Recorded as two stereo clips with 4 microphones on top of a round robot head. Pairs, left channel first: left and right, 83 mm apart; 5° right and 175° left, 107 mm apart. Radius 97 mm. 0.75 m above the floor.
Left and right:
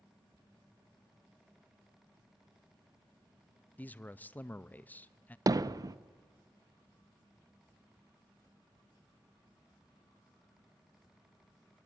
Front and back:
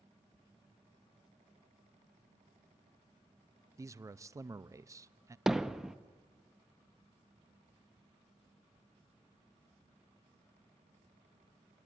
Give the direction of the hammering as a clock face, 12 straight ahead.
3 o'clock.